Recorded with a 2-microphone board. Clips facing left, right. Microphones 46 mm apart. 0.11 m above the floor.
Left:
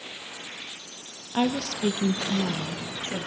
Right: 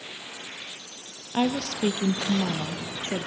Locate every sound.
1.3 s a woman speaking: 5° right (ahead or behind), 2 m; by 3.3 s 60° right (ahead or behind), 3 m